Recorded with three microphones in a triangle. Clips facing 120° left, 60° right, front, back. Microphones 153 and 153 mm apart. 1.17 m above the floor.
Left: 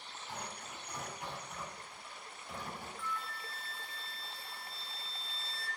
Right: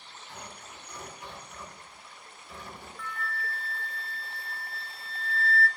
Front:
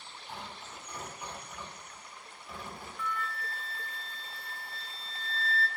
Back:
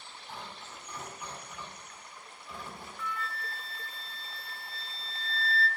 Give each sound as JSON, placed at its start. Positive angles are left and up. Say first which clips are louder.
{"t": 0.3, "sound": "tearing paper", "louder": "left 1 dB, even", "azimuth_deg": 85, "distance_m": 4.5}
{"t": 3.0, "sound": "a flute", "louder": "right 9 dB, front 2 dB", "azimuth_deg": -40, "distance_m": 0.8}